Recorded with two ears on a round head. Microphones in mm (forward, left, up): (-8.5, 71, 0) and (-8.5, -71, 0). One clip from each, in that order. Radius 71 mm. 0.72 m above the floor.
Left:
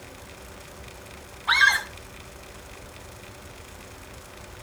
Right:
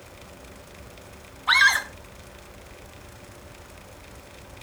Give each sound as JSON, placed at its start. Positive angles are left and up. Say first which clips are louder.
{"t": 1.5, "sound": "a scream", "louder": "right 1 dB", "side_deg": -10, "distance_m": 2.0}